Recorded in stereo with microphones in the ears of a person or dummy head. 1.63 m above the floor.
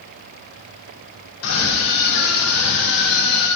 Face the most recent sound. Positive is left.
turn(degrees=75)  # may be behind; listen again after turning